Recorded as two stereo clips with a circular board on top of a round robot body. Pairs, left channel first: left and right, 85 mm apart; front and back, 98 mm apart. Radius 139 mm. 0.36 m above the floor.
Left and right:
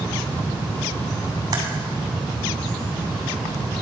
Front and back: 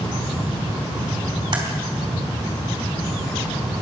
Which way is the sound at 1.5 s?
135° right.